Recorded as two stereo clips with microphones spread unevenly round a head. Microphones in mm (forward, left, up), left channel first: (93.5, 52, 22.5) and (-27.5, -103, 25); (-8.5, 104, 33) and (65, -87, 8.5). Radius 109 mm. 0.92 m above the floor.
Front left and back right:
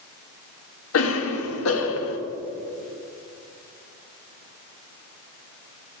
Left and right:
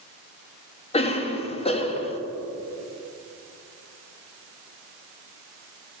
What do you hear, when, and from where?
0.9 s a cough: 45° left, 1.1 m